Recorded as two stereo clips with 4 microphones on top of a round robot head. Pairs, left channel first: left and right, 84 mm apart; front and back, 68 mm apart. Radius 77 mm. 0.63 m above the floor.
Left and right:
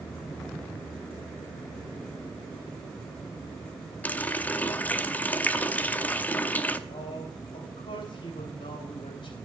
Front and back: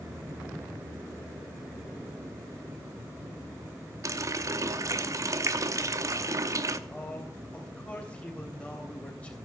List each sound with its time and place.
4.0 s a running tap: 155° left, 0.8 m
6.9 s a man speaking: 70° left, 3 m